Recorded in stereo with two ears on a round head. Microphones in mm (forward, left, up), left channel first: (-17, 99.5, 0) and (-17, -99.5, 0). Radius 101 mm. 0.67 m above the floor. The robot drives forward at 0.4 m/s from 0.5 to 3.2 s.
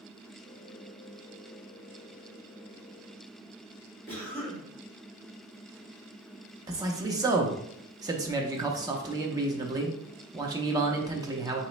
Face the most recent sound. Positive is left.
turn(degrees=-15)  # may be behind; listen again after turning